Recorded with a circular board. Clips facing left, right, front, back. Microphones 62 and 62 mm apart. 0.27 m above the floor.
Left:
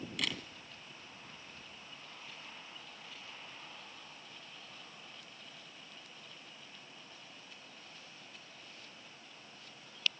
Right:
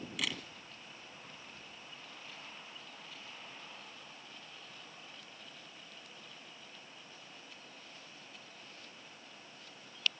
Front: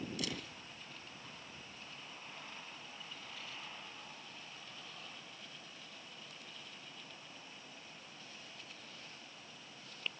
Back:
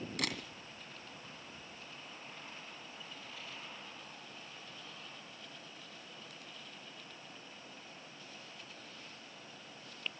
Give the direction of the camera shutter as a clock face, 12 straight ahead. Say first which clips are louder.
Even, back 5 dB; 6 o'clock.